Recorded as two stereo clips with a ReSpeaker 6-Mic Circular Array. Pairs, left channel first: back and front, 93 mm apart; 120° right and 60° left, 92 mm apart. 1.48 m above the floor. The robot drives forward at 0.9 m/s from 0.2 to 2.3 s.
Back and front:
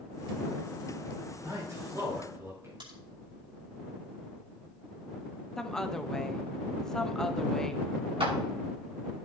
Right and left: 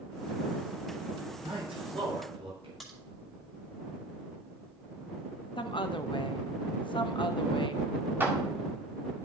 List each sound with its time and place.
1.4 s a man speaking: 50° left, 5.5 m; by 2.7 s 60° left, 5 m
2.8 s a crack: 30° right, 4.5 m
5.6 s a woman speaking: 95° right, 0.8 m
8.2 s a clap: 5° right, 2.5 m